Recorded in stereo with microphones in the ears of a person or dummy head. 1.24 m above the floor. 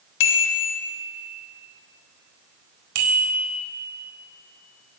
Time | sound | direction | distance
0.2 | a bicycle bell | 70° left (ahead or behind) | 3.5 m
3.0 | a bicycle bell | 80° right | 4 m